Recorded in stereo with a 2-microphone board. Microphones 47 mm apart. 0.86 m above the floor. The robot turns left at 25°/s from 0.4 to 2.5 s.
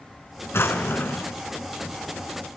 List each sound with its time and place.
0.5 s a drawer: 70° left (ahead or behind), 2 m; by 1.3 s 55° left (ahead or behind), 2 m